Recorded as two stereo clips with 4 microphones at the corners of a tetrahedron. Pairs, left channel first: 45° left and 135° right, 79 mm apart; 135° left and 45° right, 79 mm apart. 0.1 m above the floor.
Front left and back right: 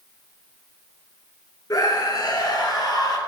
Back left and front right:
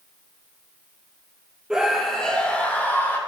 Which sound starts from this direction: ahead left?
A scream, at 1.7 s.